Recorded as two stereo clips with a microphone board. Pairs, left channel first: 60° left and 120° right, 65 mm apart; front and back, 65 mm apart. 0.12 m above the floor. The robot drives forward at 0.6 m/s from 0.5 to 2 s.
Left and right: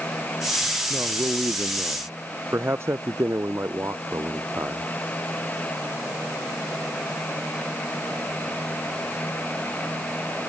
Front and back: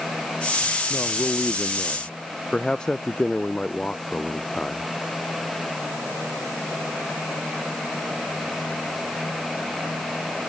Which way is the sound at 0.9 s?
70° right.